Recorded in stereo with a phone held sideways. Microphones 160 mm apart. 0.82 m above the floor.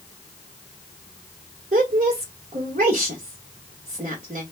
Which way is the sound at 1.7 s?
50° right (ahead or behind).